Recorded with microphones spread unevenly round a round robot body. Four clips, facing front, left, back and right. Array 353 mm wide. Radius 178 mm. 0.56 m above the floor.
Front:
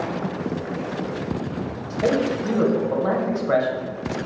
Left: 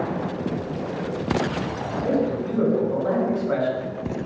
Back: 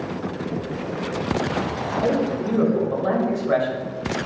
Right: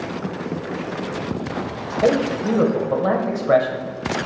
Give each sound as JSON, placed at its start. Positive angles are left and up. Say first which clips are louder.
{"t": 1.9, "sound": "a man speaking", "louder": "right 5 dB, front 1 dB", "azimuth_deg": -85, "distance_m": 2.5}